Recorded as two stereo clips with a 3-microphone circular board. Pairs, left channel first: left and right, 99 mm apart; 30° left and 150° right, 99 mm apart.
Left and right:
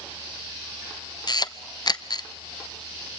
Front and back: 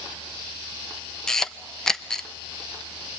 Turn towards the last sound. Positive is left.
turn(degrees=115)